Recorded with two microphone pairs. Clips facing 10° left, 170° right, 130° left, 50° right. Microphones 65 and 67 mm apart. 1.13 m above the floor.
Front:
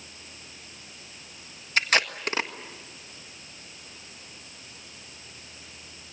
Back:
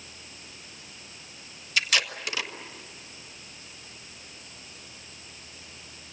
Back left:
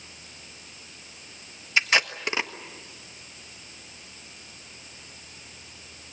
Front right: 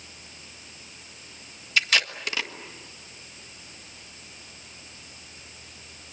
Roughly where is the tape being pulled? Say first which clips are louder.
Front 3 dB, back left 2 dB; ahead left.